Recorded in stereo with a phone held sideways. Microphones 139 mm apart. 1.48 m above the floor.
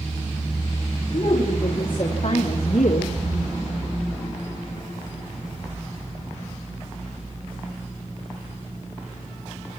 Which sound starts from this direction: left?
A woman speaking, at 1.1 s.